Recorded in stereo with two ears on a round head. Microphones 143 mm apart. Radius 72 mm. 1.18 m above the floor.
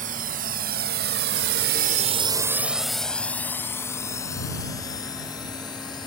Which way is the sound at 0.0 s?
60° right (ahead or behind).